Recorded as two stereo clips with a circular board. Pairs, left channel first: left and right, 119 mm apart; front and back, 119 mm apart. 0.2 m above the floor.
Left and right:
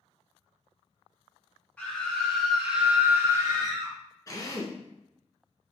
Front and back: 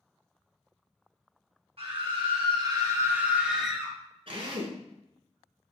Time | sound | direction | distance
1.8 | a scream | 165° left | 2.0 m
4.3 | a drill | 145° left | 1.1 m